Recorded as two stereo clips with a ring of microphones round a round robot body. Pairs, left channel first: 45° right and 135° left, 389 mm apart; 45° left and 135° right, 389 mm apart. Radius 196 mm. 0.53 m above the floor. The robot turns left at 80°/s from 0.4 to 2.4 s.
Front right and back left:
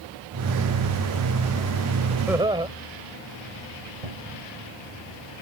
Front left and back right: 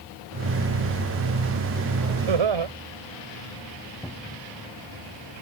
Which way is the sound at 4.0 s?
135° left.